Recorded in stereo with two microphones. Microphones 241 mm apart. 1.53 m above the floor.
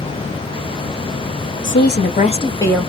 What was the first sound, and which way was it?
A woman speaking, 55° left (ahead or behind).